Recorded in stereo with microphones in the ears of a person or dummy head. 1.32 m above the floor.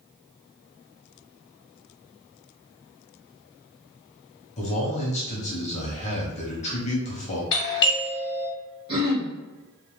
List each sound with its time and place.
4.6 s a man speaking: 40° left (ahead or behind), 1.0 m
7.5 s a doorbell: 25° left (ahead or behind), 1.0 m
8.9 s throat clearing: 30° right (ahead or behind), 1.1 m